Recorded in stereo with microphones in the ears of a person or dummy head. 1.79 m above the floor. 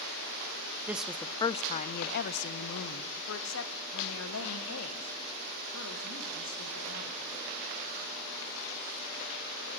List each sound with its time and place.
0.9 s a woman speaking: 10° right (ahead or behind), 0.5 m; by 7.2 s 85° left, 3 m